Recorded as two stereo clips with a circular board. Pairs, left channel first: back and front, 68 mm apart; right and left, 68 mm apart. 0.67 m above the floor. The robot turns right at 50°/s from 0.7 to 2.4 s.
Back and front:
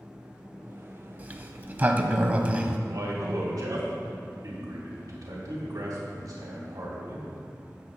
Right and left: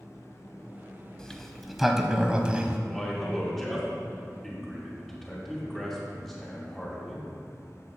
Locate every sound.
1.2 s a sliding door: 25° right, 0.5 m; by 2.8 s 40° left, 0.5 m
2.9 s a man speaking: straight ahead, 1.8 m